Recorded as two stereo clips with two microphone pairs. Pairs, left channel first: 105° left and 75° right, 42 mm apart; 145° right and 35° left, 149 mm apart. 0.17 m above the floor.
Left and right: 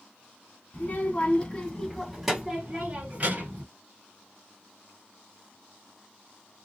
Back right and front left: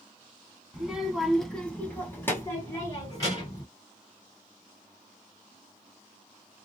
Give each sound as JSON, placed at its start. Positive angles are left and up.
{"t": 0.7, "sound": "a child speaking", "azimuth_deg": 115, "distance_m": 1.1}